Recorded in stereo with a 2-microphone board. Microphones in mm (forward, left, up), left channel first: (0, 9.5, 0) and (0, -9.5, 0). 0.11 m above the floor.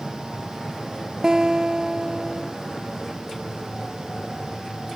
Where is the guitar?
45° right (ahead or behind).